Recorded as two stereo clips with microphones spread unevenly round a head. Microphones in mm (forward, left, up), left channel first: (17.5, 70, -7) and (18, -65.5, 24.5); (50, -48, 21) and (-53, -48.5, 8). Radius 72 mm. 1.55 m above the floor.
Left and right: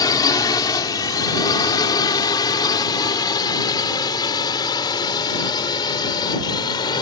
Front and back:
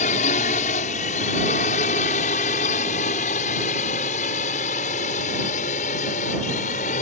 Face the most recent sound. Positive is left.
turn(degrees=30)